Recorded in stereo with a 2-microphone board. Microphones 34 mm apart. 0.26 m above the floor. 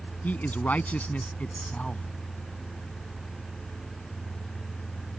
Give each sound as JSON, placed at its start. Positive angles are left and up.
{"t": 0.2, "sound": "a man speaking", "side_deg": 60}